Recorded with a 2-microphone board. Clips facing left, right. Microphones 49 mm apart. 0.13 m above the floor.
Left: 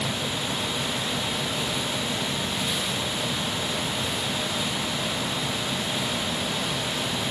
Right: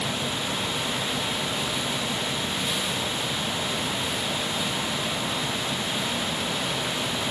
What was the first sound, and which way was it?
Only background noise.